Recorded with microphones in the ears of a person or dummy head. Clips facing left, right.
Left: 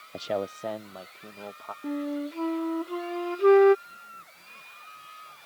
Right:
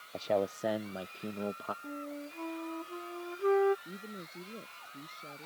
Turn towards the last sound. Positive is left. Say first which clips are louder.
# right 10 dB
turn(degrees=-70)  # may be behind; listen again after turning